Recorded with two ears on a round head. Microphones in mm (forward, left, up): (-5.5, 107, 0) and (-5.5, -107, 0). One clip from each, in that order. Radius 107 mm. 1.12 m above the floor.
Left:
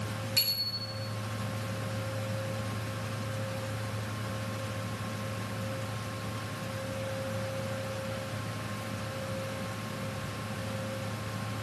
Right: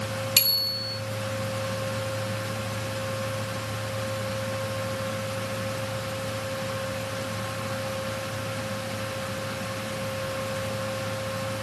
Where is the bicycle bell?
70° right (ahead or behind), 2 m.